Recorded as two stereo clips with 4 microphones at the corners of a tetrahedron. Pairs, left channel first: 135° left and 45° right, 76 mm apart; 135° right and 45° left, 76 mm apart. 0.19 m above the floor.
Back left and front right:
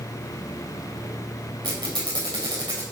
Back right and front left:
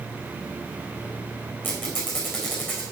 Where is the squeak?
70° right, 3 m.